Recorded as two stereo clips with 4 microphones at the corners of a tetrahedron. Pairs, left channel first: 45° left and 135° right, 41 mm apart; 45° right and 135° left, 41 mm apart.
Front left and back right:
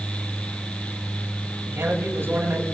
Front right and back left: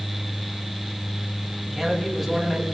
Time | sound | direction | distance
1.6 | a man speaking | 135° right | 6.5 m